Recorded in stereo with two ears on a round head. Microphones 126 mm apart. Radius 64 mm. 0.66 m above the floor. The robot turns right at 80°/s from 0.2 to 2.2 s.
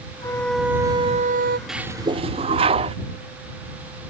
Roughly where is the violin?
Behind left.